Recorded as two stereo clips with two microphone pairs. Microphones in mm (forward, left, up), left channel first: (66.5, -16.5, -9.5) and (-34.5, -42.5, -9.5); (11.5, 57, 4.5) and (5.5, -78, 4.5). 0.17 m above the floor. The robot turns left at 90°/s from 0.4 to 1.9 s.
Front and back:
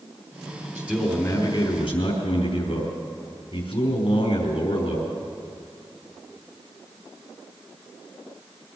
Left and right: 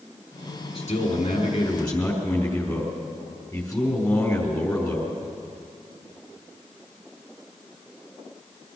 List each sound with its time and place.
0.8 s a man speaking: 130° left, 4 m; by 5.2 s 25° left, 4 m